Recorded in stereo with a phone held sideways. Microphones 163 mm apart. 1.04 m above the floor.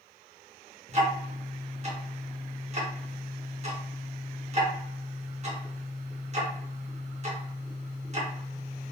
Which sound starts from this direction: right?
Ticking, at 0.9 s.